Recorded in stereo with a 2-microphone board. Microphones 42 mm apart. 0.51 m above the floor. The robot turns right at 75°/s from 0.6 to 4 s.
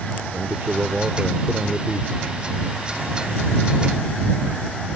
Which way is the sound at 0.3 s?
65° right.